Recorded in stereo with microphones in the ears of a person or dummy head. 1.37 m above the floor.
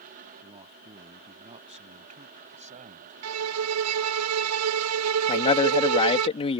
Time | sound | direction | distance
0.4 | a man speaking | 35° right (ahead or behind) | ?
3.2 | a violin | 80° right | ?
5.3 | a man speaking | 25° left (ahead or behind) | ?